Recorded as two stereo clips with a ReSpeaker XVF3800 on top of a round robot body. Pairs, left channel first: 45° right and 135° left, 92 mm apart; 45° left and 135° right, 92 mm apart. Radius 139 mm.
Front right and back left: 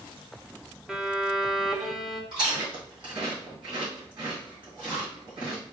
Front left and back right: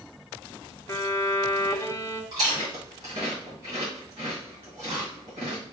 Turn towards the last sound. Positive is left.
turn(degrees=175)